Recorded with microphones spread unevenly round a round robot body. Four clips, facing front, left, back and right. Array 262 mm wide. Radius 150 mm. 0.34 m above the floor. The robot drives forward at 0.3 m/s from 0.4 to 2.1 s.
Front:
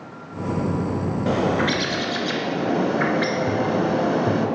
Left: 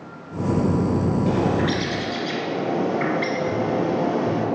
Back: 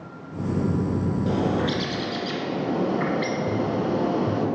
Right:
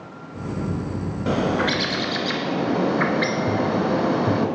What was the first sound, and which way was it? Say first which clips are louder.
A bird: right 4 dB, front 4 dB; 40° right.